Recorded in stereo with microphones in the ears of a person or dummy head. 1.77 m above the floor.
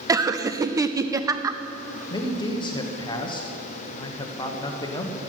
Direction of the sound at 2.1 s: 30° left (ahead or behind).